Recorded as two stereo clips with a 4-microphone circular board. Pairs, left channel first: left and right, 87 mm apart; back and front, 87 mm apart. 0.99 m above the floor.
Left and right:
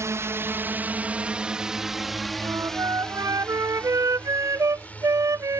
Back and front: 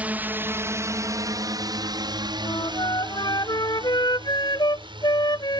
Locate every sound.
0.0 s a drone: 60° right; by 5.6 s 20° left
2.4 s a flute: 145° right